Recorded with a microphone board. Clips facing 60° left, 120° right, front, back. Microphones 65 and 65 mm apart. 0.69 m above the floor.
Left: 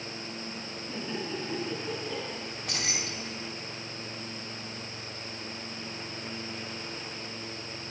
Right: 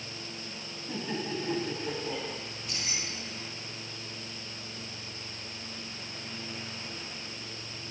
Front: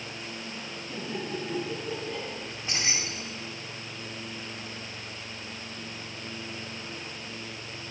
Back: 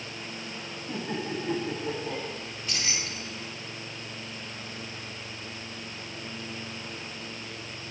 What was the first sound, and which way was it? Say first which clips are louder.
Laughter: right 1 dB, back 2 dB; 175° right.